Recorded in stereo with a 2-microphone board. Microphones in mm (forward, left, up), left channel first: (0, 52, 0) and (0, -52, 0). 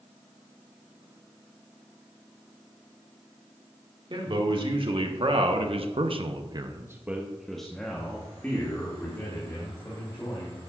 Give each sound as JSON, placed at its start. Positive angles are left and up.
{"t": 4.1, "sound": "a man speaking", "side_deg": -50, "distance_m": 2.0}